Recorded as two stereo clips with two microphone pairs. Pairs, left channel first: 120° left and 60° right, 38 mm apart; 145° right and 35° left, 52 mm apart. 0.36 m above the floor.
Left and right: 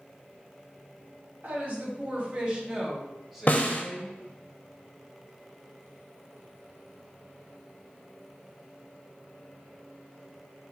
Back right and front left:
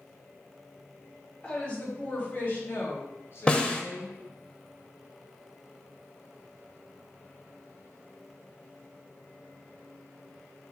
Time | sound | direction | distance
1.4 | a woman speaking | 80° right | 1.8 m
3.5 | a snare drum | 150° left | 0.6 m